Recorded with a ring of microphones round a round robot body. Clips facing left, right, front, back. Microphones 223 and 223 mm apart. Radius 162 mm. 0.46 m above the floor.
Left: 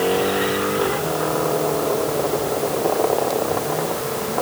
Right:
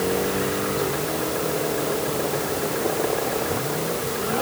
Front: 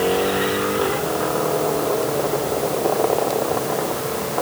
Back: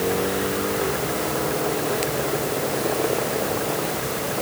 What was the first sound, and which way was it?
Only background noise.